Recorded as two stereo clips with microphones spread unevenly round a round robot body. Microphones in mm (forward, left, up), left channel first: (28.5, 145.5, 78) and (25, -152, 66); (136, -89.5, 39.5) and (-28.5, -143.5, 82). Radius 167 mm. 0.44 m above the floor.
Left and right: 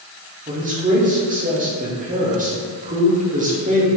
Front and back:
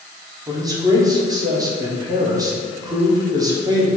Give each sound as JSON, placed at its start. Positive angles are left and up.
{"t": 0.5, "sound": "a man speaking", "azimuth_deg": -85, "distance_m": 1.0}